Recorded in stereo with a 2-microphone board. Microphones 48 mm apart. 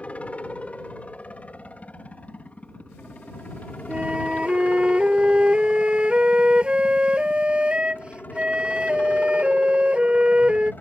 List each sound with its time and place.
0.0 s a helicopter: 25° left (ahead or behind); by 10.8 s 40° left (ahead or behind)
3.9 s a flute: 20° right (ahead or behind)